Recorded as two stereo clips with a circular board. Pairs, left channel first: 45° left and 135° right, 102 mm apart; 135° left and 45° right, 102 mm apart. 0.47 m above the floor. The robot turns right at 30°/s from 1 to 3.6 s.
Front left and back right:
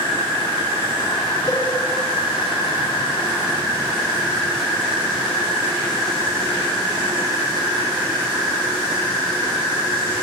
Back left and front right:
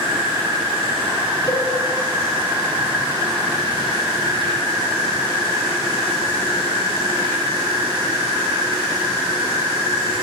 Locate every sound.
0.0 s an insect: 115° right, 4 m; by 10.2 s 40° right, 4 m
1.5 s a cowbell: 125° left, 3.5 m; by 1.6 s 130° left, 3.5 m